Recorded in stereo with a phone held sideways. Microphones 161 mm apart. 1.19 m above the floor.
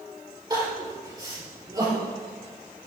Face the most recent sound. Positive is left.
turn(degrees=-25)  # may be behind; listen again after turning